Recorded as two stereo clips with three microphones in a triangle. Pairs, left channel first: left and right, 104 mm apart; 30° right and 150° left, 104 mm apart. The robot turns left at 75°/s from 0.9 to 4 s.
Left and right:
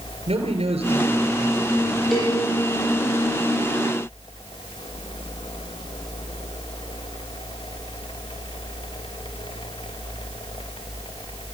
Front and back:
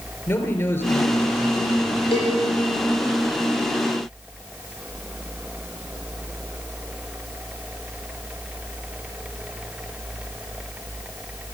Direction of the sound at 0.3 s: 90° right.